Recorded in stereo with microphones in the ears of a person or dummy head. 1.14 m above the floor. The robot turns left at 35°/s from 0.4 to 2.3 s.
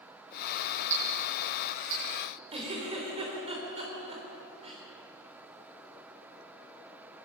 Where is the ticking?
45° right (ahead or behind), 8 m; by 2.0 s 85° right, 8 m.